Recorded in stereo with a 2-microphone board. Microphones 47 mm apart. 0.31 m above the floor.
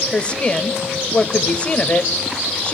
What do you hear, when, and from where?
0.1 s a woman speaking: 25° left (ahead or behind), 1.2 m